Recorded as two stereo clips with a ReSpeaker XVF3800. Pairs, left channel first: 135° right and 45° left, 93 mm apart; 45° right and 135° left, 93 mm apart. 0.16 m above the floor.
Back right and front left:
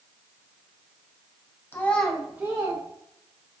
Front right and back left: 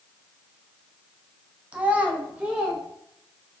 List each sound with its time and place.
1.7 s a child speaking: 165° right, 0.6 m; by 2.8 s 65° left, 0.8 m